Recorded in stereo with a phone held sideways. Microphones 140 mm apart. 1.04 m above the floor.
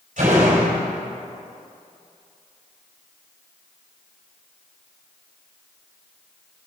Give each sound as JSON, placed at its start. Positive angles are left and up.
{"t": 0.2, "sound": "a door slam", "side_deg": -65, "distance_m": 3.5}